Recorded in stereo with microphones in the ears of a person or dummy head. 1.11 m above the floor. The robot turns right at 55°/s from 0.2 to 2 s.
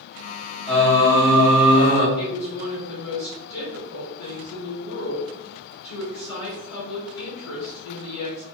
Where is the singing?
5° left, 1.8 m; by 2.1 s 80° left, 1.8 m.